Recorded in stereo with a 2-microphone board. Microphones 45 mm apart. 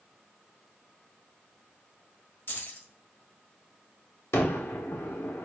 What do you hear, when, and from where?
2.5 s keys jangling: 60° left (ahead or behind), 1.1 m
4.3 s a gunshot: 80° left, 1.1 m